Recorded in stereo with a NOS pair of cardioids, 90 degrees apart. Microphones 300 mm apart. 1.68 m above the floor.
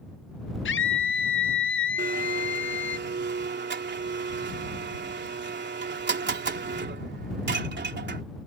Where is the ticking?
No ticking in this recording.